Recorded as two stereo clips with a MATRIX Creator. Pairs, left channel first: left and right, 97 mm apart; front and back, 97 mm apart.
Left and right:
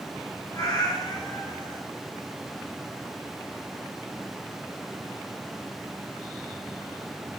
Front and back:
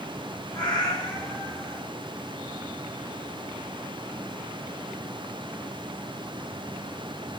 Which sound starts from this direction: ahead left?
A cat meowing, at 0.5 s.